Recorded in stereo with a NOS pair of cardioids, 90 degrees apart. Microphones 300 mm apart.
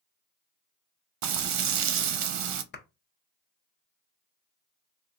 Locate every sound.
1.2 s frying: 65° right, 0.6 m
2.7 s a clap: 35° left, 0.6 m